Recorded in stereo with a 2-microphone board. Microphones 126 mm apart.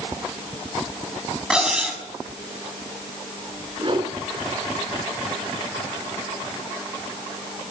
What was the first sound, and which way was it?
Cutlery clinking, 5° right (ahead or behind).